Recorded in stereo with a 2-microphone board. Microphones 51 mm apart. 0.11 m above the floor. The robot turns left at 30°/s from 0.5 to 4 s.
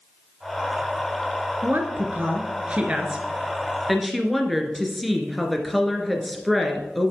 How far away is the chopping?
I don't hear chopping.